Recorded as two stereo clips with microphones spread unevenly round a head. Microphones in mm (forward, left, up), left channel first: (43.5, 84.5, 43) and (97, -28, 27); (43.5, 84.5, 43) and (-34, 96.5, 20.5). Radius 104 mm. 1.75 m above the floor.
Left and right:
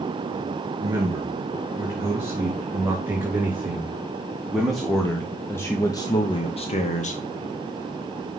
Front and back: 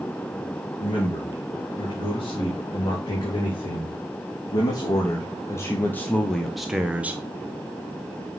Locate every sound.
0.8 s a man speaking: straight ahead, 3.5 m; by 7.2 s 100° left, 1.0 m